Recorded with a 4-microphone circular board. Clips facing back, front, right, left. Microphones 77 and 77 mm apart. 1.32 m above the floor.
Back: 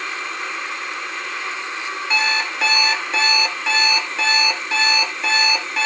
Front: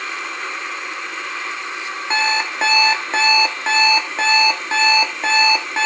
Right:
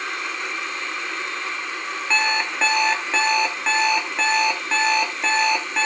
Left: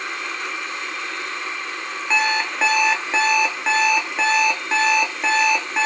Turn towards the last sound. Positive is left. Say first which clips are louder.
# front 2 dB, left 2 dB
turn(degrees=15)